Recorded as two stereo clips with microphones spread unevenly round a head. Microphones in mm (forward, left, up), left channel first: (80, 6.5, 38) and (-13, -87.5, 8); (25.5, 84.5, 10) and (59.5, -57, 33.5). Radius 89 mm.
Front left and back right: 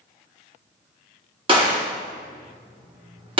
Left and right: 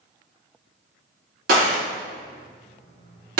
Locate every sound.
1.5 s a gunshot: 80° right, 1.2 m